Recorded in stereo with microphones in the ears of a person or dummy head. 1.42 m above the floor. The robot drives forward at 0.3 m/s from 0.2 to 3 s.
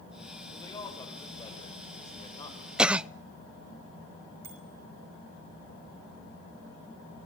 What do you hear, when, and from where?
0.5 s a man speaking: 15° left (ahead or behind), 5.5 m; by 2.7 s 10° left (ahead or behind), 6 m
2.8 s a cough: centre (ahead or behind), 0.5 m
4.4 s a bicycle bell: 65° right (ahead or behind), 7 m